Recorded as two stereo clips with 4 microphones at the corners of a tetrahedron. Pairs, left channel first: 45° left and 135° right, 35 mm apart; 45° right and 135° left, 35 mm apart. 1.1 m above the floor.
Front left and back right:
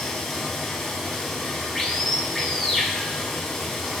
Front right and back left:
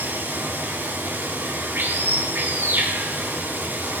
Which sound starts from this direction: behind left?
Running water, at 0.0 s.